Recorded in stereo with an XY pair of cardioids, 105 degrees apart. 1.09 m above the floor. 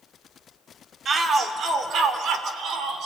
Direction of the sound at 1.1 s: 45° right.